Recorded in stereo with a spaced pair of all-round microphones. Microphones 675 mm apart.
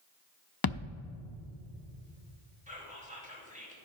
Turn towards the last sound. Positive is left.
turn(degrees=-10)  # may be behind; listen again after turning